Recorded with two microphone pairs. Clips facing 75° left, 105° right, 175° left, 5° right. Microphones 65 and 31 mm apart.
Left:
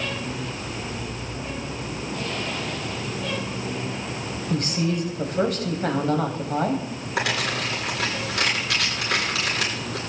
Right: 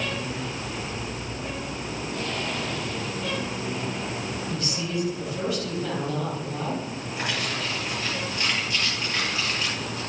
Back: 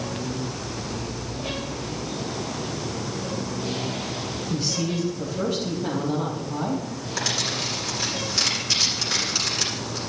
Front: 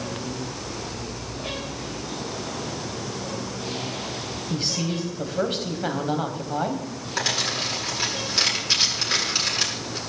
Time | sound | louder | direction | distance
4.5 | a man speaking | left 8 dB, even | 40° left | 4 m
7.2 | crumpling | left 5 dB, front 2 dB | 65° left | 9.5 m